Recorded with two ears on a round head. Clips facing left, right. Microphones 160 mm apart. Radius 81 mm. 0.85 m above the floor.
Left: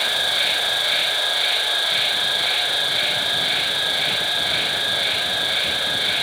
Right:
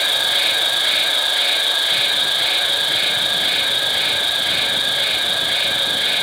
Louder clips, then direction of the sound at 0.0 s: Right 1 dB; 65° right (ahead or behind).